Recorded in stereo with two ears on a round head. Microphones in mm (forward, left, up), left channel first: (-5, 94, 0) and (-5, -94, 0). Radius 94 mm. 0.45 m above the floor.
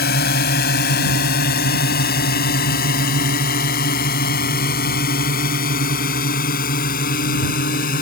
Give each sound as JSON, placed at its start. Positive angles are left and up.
{"t": 0.0, "sound": "a drone", "side_deg": 50}